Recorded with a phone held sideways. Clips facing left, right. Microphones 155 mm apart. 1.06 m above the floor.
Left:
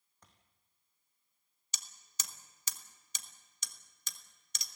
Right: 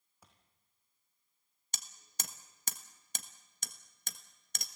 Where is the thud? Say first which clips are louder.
Right 1 dB; 10° right (ahead or behind), 4 m.